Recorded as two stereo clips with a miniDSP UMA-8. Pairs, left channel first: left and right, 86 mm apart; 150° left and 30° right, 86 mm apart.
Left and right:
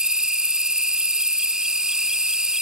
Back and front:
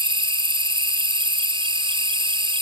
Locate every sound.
0.0 s an insect: 10° right